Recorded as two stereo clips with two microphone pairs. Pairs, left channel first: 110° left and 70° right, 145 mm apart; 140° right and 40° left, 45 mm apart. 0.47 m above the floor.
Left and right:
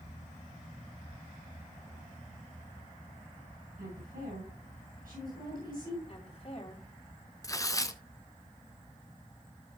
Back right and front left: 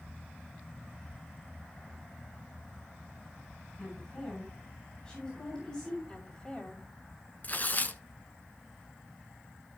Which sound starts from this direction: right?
A woman speaking, at 3.8 s.